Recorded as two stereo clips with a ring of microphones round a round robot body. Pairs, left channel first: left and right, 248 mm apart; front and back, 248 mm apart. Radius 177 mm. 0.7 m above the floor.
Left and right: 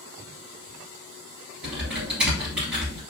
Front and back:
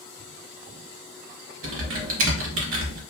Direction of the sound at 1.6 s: 175° right.